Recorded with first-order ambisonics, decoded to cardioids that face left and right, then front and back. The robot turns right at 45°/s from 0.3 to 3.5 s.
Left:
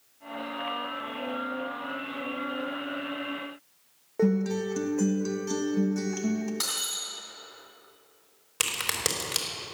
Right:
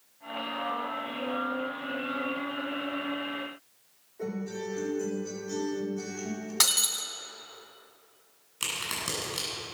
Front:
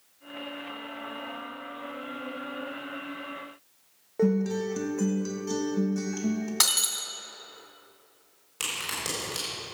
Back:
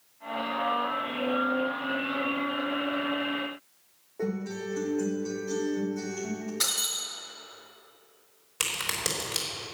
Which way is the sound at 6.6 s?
35° right.